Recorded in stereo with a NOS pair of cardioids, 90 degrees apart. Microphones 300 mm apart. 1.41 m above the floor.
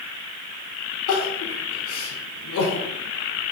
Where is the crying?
70° left, 3.5 m.